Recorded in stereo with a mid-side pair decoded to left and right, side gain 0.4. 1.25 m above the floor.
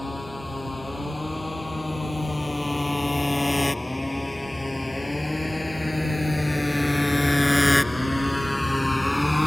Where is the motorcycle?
10° left; by 9.5 s 5° left.